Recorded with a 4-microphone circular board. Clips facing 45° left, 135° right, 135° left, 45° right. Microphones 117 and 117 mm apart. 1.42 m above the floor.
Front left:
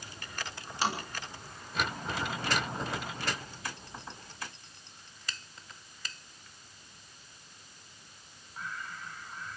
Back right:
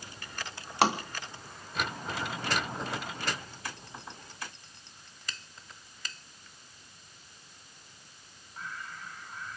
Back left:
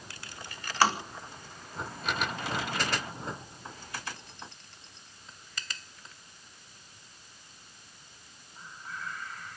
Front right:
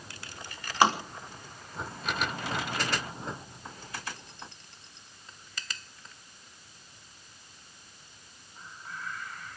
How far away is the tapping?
About 3 m.